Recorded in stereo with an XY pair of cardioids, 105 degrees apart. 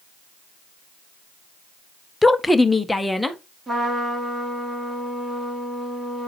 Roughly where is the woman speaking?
Ahead.